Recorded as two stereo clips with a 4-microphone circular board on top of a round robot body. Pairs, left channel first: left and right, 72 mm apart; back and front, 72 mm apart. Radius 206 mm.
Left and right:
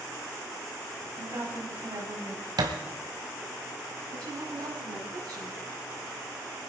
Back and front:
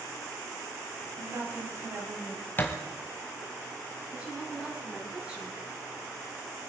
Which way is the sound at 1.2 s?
40° right.